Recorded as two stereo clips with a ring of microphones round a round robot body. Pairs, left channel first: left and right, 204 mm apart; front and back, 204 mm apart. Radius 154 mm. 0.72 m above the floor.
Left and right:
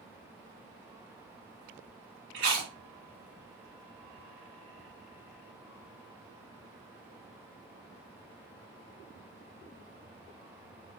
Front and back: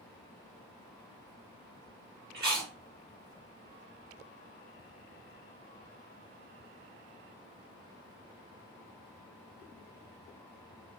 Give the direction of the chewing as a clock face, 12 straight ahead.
4 o'clock.